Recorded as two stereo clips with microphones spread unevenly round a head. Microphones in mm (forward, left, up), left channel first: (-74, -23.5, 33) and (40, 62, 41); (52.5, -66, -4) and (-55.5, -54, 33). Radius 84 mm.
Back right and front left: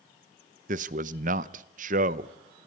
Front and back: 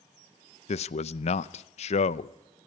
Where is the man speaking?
Straight ahead, 0.7 m.